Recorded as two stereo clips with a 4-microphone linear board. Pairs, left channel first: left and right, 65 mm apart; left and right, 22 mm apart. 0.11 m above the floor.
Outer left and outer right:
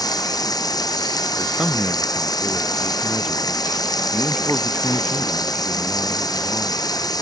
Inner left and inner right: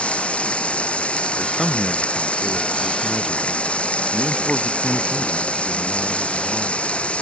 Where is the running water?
70° left (ahead or behind).